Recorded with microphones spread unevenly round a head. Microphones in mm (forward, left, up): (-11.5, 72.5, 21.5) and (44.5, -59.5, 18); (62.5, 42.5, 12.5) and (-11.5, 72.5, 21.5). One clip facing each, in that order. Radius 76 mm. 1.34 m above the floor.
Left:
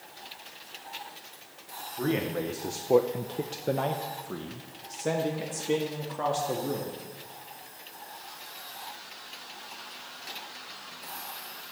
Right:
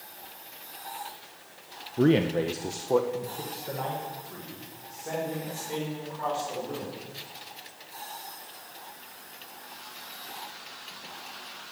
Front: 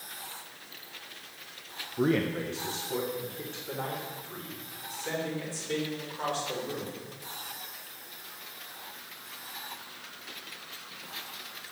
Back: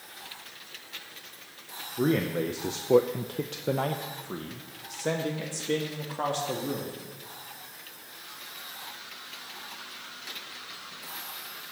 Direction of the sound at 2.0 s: 115° right.